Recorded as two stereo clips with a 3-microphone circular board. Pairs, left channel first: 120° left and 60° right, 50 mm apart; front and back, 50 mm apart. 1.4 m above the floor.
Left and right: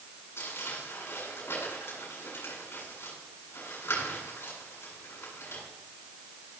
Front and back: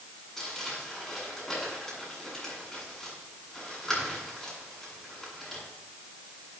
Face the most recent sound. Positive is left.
turn(degrees=85)